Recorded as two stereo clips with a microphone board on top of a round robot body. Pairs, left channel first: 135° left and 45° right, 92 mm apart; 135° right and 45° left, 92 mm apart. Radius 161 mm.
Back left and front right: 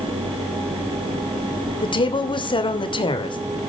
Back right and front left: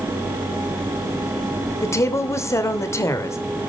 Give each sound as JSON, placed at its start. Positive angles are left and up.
{"t": 1.8, "sound": "a woman speaking", "azimuth_deg": 165, "distance_m": 3.0}